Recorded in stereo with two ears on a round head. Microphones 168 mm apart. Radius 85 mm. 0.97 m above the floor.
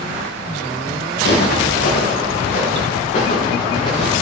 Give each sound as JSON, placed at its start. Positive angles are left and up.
{"t": 1.2, "sound": "footsteps", "side_deg": 60, "distance_m": 5.0}